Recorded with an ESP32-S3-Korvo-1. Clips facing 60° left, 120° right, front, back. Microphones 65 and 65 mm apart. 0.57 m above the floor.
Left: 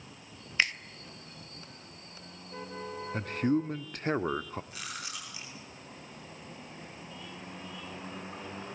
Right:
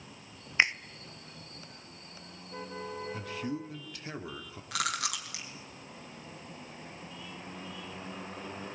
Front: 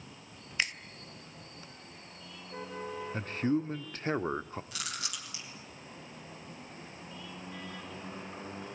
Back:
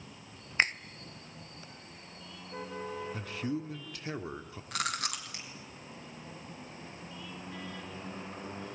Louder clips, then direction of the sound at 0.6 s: Right 3 dB, back 5 dB; 175° right.